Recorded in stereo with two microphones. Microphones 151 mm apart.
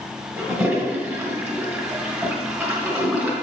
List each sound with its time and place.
0.4 s a toilet flushing: 15° right (ahead or behind), 1.7 m